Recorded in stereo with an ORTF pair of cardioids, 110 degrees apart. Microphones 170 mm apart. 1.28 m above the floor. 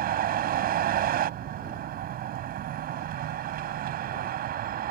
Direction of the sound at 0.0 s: 60° right.